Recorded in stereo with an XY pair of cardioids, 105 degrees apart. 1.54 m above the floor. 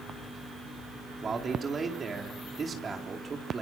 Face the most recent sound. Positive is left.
turn(degrees=-35)